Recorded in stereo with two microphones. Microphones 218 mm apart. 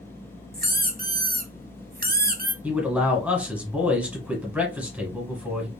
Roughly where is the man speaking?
Centre.